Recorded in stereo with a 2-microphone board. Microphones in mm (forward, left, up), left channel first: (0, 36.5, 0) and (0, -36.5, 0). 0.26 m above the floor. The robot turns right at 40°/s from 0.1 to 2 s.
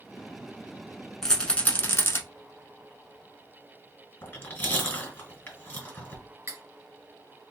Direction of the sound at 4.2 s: 25° left (ahead or behind).